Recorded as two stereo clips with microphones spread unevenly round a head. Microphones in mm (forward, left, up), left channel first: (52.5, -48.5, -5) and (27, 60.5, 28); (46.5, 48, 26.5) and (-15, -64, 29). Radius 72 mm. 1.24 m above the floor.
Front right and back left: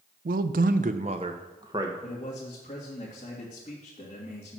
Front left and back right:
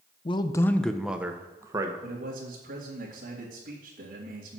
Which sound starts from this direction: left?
A man speaking, at 0.2 s.